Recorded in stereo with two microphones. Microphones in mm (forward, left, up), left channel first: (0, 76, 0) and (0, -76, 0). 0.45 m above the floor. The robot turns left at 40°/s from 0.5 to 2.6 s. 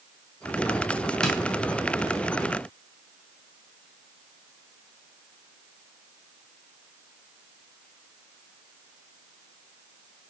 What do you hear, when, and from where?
1.2 s tapping: 5° left (ahead or behind), 3 m; by 1.4 s 10° left (ahead or behind), 3 m